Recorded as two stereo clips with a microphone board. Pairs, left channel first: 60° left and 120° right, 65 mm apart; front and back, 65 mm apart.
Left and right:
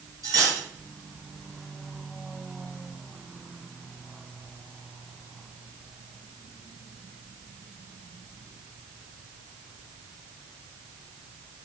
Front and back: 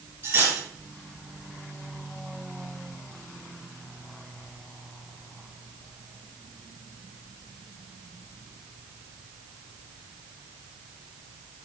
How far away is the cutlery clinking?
About 2 m.